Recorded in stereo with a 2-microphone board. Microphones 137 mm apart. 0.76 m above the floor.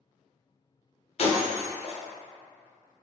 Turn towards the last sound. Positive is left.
turn(degrees=45)  # may be behind; listen again after turning